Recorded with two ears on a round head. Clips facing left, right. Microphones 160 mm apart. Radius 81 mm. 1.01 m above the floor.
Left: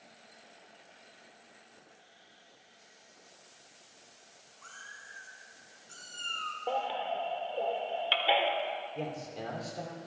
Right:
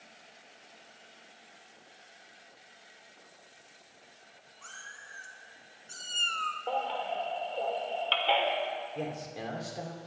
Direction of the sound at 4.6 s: 55° right (ahead or behind).